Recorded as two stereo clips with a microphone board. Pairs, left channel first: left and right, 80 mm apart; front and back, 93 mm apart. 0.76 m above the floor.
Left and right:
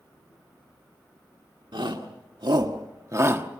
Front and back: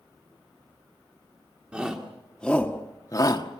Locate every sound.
1.7 s a shout: 100° right, 1.9 m; by 3.6 s 25° right, 1.4 m